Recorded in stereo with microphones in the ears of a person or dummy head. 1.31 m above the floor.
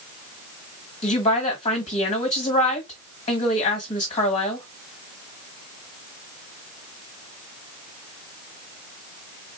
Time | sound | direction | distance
1.0 | a woman speaking | 25° left (ahead or behind) | 1.5 m